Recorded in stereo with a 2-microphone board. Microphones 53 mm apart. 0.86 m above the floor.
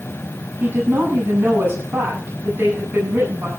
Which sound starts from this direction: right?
A woman speaking, at 0.6 s.